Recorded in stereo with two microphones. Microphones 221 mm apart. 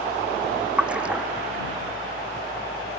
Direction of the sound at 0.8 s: 5° right (ahead or behind).